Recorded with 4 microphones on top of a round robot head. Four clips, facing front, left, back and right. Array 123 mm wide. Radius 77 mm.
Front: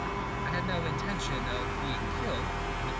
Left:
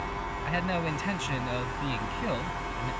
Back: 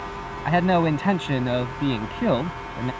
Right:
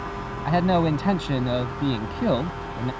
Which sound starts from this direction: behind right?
A man speaking, at 0.5 s.